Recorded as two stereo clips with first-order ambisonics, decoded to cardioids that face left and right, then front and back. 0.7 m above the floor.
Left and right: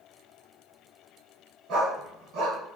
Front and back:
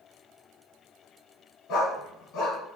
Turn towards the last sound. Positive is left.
turn(degrees=-45)